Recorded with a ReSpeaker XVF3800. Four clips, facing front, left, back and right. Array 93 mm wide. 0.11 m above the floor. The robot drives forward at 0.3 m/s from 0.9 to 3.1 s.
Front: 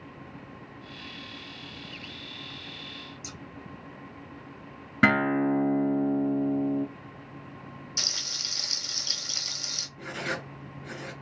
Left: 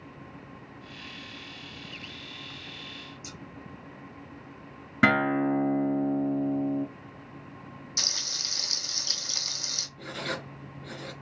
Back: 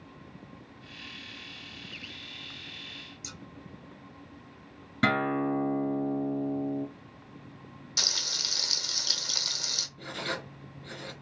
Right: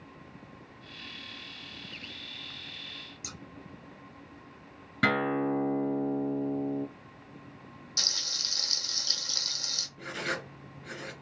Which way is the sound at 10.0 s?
45° right.